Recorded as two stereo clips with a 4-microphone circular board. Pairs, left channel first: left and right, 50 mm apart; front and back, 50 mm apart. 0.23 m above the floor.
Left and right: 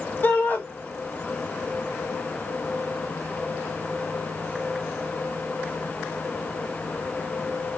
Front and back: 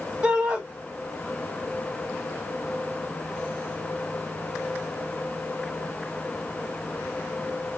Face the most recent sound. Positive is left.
turn(degrees=120)